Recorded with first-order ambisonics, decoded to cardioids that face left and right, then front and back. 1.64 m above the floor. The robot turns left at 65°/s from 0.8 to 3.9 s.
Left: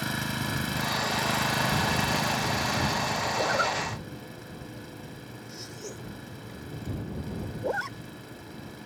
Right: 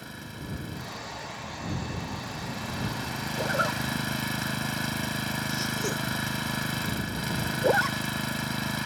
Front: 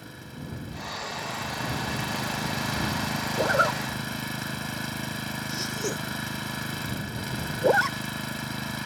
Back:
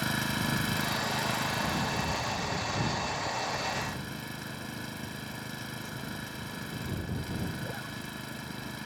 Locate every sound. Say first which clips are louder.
0.0 s an engine running: left 10 dB, back 12 dB; 140° left; by 8.9 s 60° right
3.4 s a zipper: right 1 dB, front 9 dB; 10° left; by 8.0 s 25° right